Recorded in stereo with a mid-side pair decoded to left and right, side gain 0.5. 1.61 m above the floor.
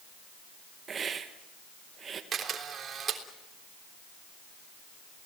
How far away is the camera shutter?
About 3.5 m.